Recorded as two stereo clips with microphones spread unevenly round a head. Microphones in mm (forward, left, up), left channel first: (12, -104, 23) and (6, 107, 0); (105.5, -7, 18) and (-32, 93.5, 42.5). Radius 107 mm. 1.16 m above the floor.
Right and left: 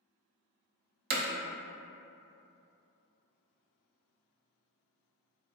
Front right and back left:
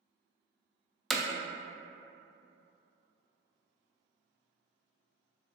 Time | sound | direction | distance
1.1 | hammering | 50° left | 0.5 m